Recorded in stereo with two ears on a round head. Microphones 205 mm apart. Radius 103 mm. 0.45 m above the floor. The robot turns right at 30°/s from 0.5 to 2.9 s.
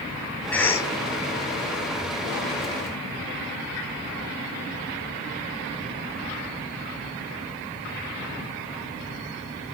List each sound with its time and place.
0.5 s a cough: 5° left (ahead or behind), 1.1 m; by 0.9 s 15° left (ahead or behind), 1.1 m